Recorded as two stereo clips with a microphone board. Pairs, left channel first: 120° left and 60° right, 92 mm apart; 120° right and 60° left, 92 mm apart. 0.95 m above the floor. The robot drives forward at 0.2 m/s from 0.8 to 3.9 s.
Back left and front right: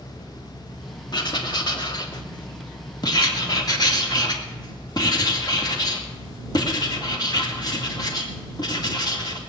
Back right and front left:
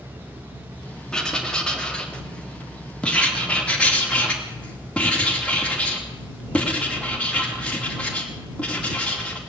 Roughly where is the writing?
Behind.